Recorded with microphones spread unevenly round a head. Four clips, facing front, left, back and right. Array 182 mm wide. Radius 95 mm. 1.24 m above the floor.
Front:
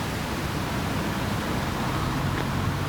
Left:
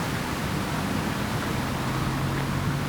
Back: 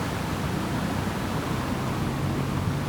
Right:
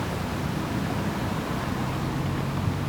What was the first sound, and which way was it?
Only background noise.